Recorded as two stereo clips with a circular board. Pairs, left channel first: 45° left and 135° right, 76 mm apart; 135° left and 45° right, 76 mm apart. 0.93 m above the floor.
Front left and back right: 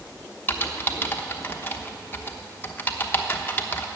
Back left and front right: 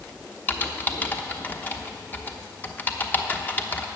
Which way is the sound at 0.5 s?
90° left.